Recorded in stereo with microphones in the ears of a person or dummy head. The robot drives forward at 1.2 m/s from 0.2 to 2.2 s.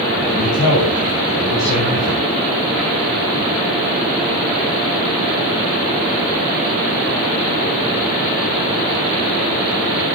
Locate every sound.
0.2 s a man speaking: 80° left, 8.5 m